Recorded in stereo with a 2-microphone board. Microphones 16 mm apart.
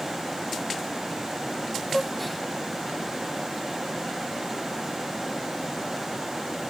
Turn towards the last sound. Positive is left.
turn(degrees=0)  # may be behind; listen again after turning